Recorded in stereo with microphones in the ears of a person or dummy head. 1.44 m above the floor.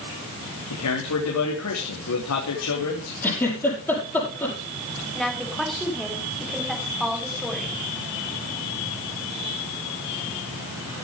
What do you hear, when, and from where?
0.7 s a man speaking: 80° left, 3.5 m
3.2 s a giggle: 10° left (ahead or behind), 6.5 m
5.2 s a woman speaking: centre (ahead or behind), 4 m